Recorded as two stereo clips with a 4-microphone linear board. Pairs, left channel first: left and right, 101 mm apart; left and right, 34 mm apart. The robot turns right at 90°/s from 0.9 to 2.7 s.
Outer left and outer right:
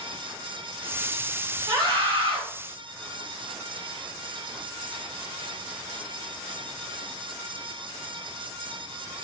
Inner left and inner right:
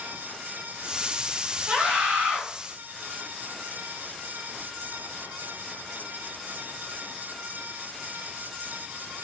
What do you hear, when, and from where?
1.7 s a scream: 135° right, 1.7 m; by 2.4 s 70° right, 1.7 m